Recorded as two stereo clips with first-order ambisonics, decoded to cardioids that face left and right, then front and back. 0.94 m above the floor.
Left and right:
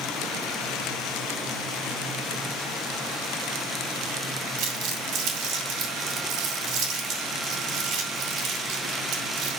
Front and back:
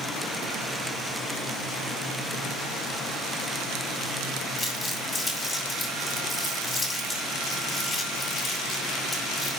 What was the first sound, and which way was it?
Crumpling, 85° right.